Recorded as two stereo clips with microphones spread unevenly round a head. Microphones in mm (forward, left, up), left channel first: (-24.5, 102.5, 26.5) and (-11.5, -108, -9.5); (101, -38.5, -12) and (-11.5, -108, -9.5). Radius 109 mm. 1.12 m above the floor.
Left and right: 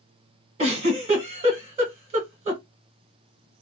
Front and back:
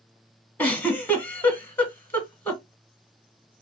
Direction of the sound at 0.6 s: 40° right.